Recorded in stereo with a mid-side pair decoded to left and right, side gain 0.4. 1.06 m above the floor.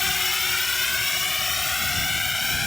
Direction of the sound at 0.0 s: 35° left.